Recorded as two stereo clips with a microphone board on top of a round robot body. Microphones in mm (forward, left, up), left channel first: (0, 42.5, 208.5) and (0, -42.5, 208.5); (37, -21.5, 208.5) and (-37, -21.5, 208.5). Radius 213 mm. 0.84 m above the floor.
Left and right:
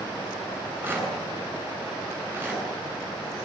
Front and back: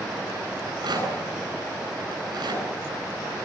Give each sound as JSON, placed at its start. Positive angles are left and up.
{"t": 0.6, "sound": "a rattle", "azimuth_deg": -155, "distance_m": 10.0}